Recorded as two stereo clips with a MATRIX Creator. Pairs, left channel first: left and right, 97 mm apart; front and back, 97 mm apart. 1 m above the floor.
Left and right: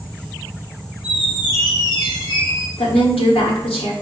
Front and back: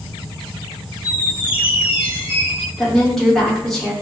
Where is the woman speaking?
85° left, 1.4 m.